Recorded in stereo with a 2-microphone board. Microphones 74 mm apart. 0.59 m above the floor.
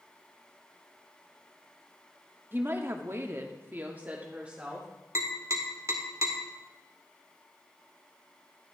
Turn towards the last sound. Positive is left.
turn(degrees=-45)  # may be behind; listen again after turning